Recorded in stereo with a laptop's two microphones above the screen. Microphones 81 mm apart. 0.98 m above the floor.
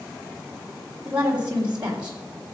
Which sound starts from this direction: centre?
A woman speaking, at 1.1 s.